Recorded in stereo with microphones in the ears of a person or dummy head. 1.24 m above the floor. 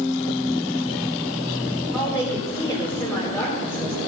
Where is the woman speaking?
10° left (ahead or behind), 4 m.